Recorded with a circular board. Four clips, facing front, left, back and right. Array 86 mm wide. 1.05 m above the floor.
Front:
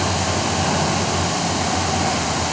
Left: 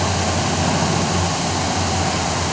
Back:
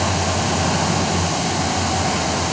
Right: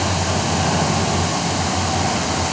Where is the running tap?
No running tap in this recording.